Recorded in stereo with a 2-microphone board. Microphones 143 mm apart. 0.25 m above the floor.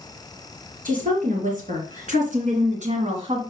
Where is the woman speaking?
70° right (ahead or behind), 4 m; by 3.4 s 50° right (ahead or behind), 1.4 m.